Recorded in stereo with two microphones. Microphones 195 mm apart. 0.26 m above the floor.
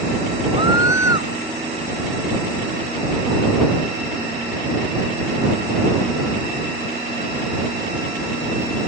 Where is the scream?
85° left.